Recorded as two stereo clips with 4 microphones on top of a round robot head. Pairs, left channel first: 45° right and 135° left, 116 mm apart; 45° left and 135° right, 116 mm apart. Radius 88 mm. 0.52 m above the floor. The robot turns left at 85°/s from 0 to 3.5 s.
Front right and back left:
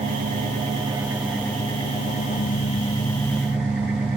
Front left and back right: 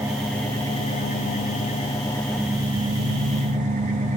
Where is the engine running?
155° left, 7.5 m; by 4.2 s 145° right, 7.5 m.